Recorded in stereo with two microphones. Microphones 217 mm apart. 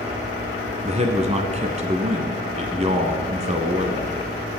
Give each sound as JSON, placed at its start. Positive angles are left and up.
{"t": 0.8, "sound": "a man speaking", "side_deg": -30, "distance_m": 1.1}